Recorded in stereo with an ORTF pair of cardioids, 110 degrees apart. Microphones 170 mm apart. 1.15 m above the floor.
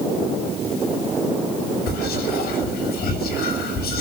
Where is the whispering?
70° left, 6.5 m.